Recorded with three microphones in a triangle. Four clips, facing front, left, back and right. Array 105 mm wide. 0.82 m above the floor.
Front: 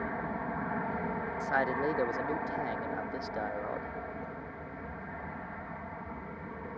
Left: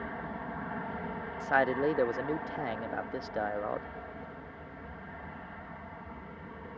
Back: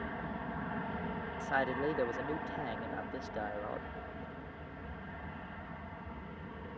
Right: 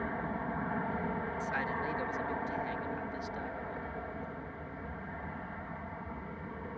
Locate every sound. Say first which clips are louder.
0.0 s an aircraft: right 3 dB, front 5 dB; 20° right
1.4 s a man speaking: left 13 dB, front 3 dB; 80° left